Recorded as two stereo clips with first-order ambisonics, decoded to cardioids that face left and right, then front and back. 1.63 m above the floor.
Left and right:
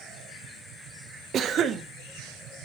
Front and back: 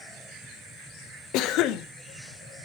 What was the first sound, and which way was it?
A cough, 35° right.